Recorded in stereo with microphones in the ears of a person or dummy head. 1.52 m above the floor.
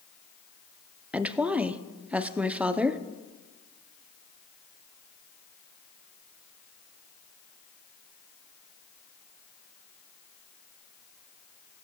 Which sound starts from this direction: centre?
A woman speaking, at 1.1 s.